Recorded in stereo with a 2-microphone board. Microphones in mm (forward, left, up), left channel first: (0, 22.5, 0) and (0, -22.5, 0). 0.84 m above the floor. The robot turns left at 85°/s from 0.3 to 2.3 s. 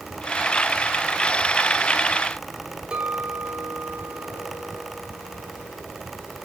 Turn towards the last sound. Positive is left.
turn(degrees=-25)  # may be behind; listen again after turning